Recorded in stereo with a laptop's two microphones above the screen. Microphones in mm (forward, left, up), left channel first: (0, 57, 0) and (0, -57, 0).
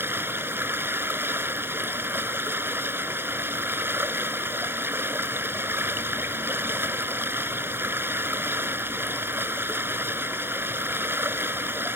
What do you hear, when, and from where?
0.0 s running water: 20° right (ahead or behind)